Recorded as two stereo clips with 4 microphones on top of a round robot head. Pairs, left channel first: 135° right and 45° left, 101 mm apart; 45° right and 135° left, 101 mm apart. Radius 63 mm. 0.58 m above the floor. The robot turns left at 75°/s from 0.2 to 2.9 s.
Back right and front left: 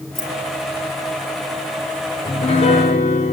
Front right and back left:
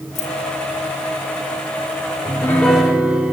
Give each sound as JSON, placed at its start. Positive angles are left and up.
{"t": 0.1, "sound": "keys jangling", "azimuth_deg": -45, "distance_m": 4.0}
{"t": 2.2, "sound": "a piano", "azimuth_deg": -100, "distance_m": 1.8}